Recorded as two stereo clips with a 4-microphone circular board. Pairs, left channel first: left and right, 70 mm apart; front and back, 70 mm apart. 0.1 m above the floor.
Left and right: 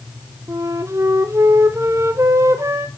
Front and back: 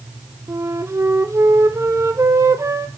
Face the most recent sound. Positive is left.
turn(degrees=-135)